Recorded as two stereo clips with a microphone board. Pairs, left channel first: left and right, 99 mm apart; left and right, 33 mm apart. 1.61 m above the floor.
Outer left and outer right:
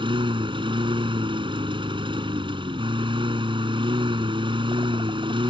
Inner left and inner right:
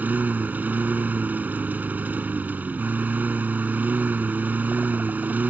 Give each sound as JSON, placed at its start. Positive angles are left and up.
{"t": 0.0, "sound": "a lawn mower", "side_deg": -60}